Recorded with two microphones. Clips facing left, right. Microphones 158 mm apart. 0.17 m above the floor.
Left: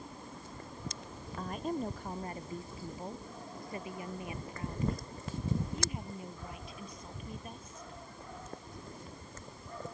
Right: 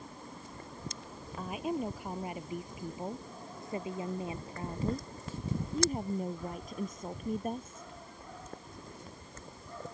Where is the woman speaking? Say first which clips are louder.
Right 1 dB; 5° right (ahead or behind); by 7.9 s 50° right (ahead or behind).